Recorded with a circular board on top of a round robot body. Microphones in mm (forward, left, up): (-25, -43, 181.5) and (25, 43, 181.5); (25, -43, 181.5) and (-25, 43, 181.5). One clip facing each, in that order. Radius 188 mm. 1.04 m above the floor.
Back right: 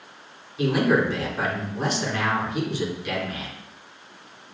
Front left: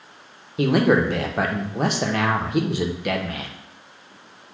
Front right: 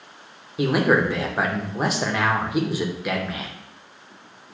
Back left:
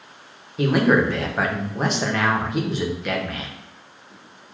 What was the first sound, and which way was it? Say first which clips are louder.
A man speaking: front left 3 dB, back left 1 dB; 25° left.